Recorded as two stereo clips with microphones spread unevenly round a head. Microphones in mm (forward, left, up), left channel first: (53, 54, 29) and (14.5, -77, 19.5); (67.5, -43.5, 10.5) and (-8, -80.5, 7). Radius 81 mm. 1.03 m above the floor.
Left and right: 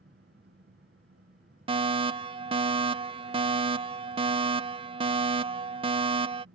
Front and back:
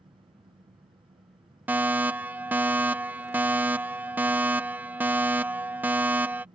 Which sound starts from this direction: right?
A fire alarm, at 1.7 s.